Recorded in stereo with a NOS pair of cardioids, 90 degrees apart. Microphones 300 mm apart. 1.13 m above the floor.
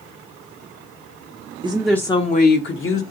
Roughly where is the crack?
I don't hear a crack.